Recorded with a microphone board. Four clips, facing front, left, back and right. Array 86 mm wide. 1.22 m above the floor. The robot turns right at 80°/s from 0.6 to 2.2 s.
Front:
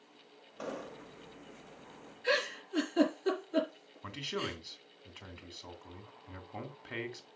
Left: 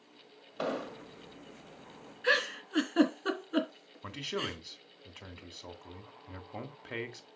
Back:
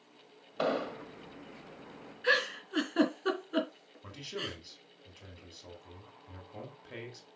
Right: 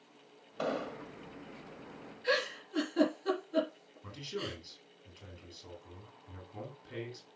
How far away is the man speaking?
About 2 m.